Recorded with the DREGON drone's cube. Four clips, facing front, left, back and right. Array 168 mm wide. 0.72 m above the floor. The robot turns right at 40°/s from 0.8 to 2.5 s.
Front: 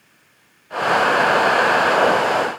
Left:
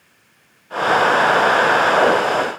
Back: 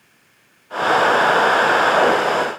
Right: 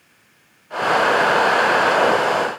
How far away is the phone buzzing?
No phone buzzing in this recording.